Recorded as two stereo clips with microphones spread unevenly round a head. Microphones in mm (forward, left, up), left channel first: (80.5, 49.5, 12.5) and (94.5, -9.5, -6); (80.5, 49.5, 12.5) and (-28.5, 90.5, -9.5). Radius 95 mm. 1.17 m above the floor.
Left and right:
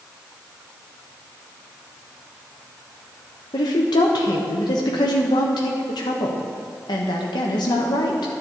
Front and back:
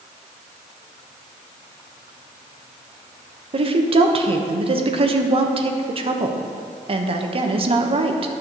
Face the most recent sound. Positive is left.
turn(degrees=135)